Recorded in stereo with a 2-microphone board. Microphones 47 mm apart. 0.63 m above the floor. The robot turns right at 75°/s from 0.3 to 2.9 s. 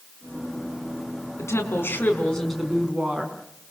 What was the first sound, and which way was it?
A woman speaking, 95° left.